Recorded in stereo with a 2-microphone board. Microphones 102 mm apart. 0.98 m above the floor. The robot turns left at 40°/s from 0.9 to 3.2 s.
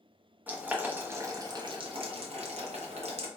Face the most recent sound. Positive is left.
turn(degrees=-70)  # may be behind; listen again after turning